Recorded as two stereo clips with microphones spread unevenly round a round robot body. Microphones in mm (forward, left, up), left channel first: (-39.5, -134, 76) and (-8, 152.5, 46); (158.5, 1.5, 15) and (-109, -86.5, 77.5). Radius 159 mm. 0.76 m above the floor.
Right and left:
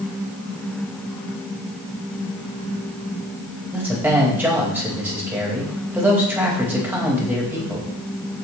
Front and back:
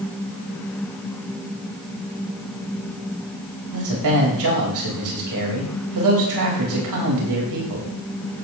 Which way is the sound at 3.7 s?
165° left.